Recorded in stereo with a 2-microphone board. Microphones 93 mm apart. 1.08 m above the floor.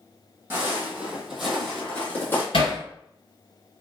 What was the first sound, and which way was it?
Footsteps, 25° right (ahead or behind).